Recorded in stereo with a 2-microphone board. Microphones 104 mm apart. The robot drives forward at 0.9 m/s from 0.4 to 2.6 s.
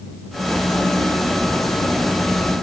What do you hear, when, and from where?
Only background noise.